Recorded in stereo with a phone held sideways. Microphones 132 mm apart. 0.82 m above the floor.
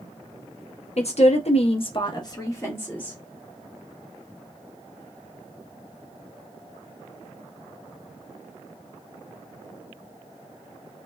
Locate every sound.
1.0 s a woman speaking: 55° left (ahead or behind), 0.7 m; by 3.2 s 10° left (ahead or behind), 1.0 m